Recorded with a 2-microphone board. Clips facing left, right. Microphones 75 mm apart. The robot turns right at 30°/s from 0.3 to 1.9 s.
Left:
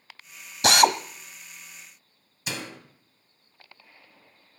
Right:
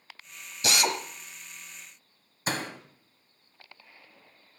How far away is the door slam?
About 2 m.